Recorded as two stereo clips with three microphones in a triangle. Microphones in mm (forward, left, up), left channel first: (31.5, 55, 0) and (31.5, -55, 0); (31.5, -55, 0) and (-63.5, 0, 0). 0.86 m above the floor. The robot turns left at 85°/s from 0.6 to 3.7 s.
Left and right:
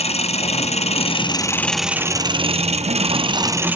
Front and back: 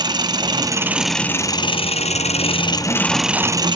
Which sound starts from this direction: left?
An engine running, at 0.0 s.